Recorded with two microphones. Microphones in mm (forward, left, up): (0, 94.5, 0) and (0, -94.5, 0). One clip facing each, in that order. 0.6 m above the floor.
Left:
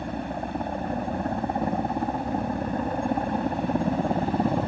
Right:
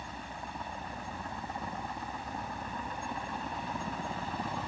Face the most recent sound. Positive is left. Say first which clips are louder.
# left 13 dB
turn(degrees=65)  # may be behind; listen again after turning